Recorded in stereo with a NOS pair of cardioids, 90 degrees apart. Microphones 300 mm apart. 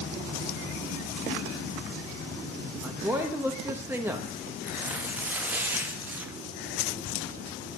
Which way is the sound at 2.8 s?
5° right.